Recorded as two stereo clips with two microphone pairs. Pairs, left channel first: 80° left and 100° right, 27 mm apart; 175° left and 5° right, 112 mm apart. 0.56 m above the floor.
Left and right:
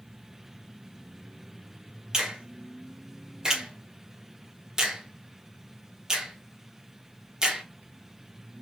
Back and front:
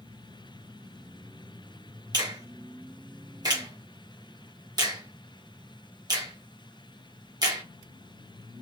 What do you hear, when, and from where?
2.1 s a finger snap: 40° right, 0.9 m